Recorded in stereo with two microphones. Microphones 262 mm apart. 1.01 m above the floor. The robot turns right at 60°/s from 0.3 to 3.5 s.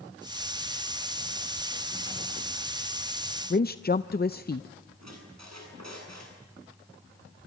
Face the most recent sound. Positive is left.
turn(degrees=-90)